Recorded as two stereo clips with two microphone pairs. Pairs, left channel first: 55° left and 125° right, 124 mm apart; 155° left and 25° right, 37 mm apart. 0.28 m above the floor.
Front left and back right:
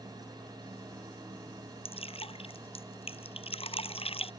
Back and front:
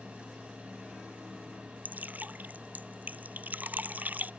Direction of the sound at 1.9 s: 15° left.